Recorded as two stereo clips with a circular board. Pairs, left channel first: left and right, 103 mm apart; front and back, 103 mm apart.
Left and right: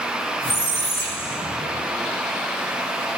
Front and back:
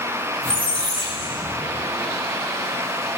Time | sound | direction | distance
0.4 | a squeak | 155° left | 6.5 m